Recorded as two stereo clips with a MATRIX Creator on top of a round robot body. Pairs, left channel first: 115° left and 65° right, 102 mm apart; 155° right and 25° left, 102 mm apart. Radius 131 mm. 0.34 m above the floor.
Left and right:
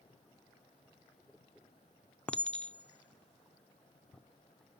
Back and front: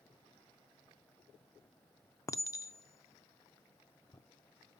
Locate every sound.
2.3 s a clink: straight behind, 0.7 m